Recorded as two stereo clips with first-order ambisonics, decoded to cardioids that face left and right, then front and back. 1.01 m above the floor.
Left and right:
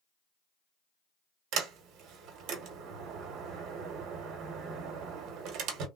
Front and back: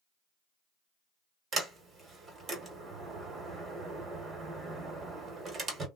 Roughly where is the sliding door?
Behind right.